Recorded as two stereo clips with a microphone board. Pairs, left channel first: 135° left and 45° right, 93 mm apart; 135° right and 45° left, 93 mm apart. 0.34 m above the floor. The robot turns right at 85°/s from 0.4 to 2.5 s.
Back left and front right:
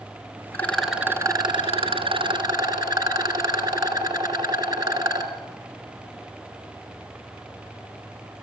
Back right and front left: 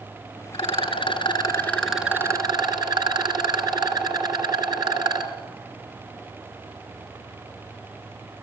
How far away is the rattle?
About 2.5 m.